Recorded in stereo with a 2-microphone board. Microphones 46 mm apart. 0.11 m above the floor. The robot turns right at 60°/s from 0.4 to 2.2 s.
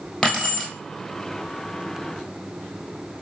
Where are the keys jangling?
10° left (ahead or behind), 1.4 m; by 0.7 s 5° right (ahead or behind), 1.4 m.